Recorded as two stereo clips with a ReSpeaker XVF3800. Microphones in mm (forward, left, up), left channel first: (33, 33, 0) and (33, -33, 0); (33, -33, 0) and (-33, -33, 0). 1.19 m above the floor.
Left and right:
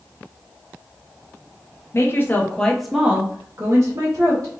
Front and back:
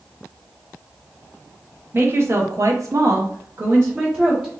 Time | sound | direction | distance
1.9 | a woman speaking | 130° left | 0.9 m